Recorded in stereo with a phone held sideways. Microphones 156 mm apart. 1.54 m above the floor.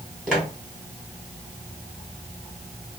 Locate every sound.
0.3 s footsteps: centre (ahead or behind), 1.9 m